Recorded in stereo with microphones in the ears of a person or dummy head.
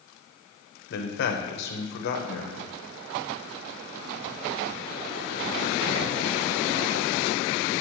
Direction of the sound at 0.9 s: 65° left (ahead or behind).